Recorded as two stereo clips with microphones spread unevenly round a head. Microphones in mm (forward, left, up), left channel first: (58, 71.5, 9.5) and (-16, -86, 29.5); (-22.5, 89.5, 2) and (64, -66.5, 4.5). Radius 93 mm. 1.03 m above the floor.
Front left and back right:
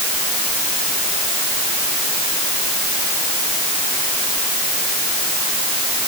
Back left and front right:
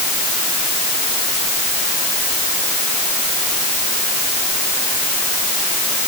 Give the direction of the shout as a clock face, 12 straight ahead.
No shout in this recording.